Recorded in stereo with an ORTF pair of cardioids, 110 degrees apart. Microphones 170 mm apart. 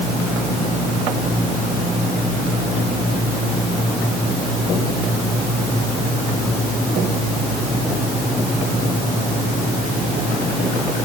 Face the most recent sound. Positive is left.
No sound to turn to.